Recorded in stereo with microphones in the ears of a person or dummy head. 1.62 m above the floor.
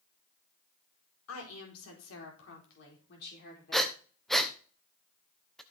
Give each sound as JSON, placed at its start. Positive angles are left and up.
{"t": 1.3, "sound": "a woman speaking", "side_deg": 80, "distance_m": 4.0}
{"t": 3.7, "sound": "breathing", "side_deg": -5, "distance_m": 1.0}